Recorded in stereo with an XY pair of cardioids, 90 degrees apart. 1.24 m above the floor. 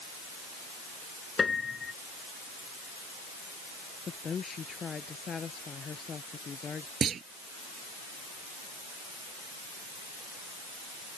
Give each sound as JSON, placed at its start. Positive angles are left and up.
{"t": 1.4, "sound": "a piano", "azimuth_deg": 40}
{"t": 4.1, "sound": "a woman speaking", "azimuth_deg": 50}
{"t": 7.0, "sound": "a clunk", "azimuth_deg": -60}